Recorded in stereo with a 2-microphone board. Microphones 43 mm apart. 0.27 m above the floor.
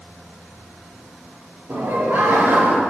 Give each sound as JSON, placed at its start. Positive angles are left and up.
{"t": 1.7, "sound": "laughter", "side_deg": -60, "distance_m": 4.0}